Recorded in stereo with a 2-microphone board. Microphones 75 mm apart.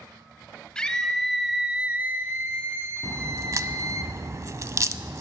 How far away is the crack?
About 0.5 m.